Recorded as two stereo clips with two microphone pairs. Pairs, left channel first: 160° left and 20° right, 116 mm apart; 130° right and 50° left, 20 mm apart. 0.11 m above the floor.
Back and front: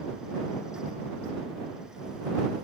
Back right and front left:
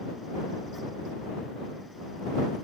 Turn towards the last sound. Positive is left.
No sound to turn to.